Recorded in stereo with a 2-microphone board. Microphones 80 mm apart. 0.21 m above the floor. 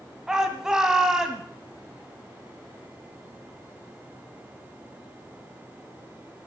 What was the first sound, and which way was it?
A shout, 10° right (ahead or behind).